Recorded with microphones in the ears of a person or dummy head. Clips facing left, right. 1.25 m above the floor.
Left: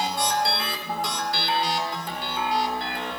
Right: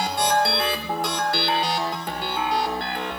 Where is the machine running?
40° right (ahead or behind), 1.1 m.